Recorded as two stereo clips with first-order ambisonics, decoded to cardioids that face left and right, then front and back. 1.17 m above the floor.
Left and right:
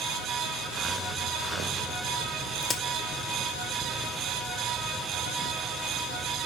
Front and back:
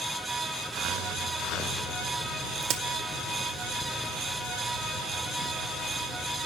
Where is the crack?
165° left, 1.1 m.